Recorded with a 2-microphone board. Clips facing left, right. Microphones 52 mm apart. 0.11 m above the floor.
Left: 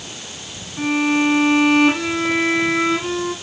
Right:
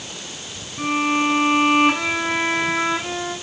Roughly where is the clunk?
No clunk in this recording.